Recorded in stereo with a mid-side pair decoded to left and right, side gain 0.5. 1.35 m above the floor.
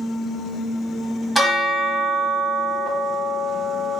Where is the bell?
5° right, 1.3 m.